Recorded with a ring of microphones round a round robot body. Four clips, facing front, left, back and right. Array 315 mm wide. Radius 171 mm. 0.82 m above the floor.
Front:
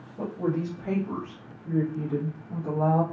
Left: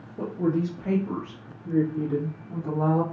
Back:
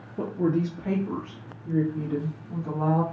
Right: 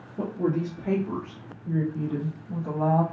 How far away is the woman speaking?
About 0.9 m.